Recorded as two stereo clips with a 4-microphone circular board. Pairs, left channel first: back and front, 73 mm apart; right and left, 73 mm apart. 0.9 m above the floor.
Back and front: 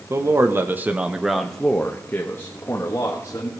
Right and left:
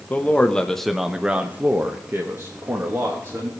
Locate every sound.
0.1 s a man speaking: 30° right, 1.1 m; by 3.5 s 130° left, 1.7 m